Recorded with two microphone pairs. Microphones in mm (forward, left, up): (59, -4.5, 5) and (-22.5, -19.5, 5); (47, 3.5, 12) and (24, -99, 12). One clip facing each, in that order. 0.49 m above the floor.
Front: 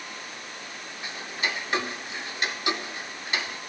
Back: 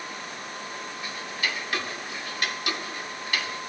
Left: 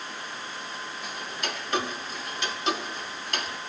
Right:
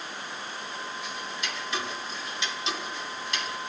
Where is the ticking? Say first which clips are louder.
Front 2 dB, left 1 dB; 65° left, 0.6 m.